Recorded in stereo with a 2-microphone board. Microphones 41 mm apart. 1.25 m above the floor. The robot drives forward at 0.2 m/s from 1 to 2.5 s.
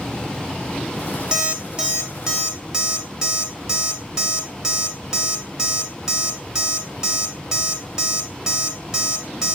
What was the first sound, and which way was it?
An alarm clock, 25° right (ahead or behind).